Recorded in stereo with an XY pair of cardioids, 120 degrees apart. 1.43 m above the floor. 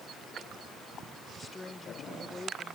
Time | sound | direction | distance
1.4 | a woman speaking | 15° left | ?